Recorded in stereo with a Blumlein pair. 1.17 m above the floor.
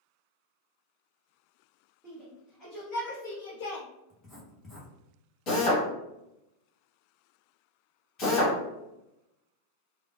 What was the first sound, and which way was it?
A shout, 5° left.